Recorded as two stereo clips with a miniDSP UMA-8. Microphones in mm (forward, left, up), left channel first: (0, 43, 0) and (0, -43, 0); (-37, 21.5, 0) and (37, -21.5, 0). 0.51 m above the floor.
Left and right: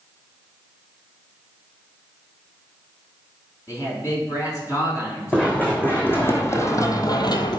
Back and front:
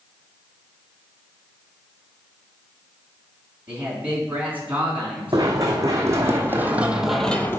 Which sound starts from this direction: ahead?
Running footsteps, at 5.3 s.